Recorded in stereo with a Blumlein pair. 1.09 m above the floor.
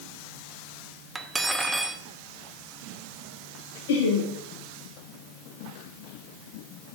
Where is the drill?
No drill in this recording.